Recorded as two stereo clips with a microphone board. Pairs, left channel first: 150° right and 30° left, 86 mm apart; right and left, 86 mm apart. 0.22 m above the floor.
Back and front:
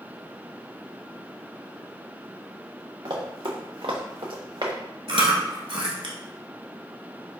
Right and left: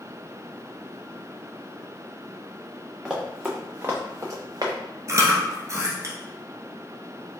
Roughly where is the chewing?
Ahead left.